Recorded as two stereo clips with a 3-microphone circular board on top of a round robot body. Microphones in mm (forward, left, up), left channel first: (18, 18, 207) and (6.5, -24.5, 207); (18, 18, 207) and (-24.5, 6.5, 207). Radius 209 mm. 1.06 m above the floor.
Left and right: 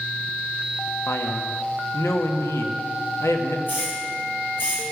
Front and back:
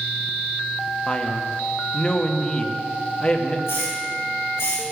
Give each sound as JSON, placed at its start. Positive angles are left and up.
{"t": 1.1, "sound": "a man speaking", "azimuth_deg": 85, "distance_m": 1.6}
{"t": 3.7, "sound": "a hiss", "azimuth_deg": 35, "distance_m": 5.0}